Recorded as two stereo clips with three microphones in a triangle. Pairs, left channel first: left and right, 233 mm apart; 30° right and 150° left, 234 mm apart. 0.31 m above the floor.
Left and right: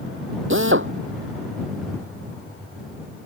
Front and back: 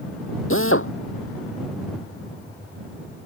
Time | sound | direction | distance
0.5 | a drill | 60° right | ?